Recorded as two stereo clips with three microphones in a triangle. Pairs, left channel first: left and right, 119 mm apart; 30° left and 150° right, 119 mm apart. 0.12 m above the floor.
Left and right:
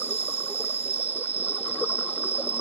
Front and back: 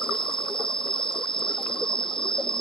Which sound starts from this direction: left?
An insect, at 0.0 s.